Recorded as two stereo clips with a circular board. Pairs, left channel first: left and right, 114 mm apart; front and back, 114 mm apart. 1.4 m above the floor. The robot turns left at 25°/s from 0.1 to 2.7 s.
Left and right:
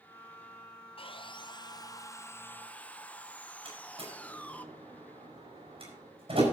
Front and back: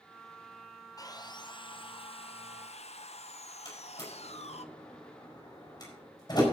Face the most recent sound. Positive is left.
turn(degrees=-55)